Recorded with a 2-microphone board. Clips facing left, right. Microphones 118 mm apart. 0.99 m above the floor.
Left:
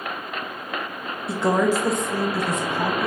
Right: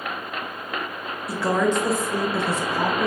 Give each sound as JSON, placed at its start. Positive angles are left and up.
{"t": 1.3, "sound": "a woman speaking", "side_deg": 25, "distance_m": 1.1}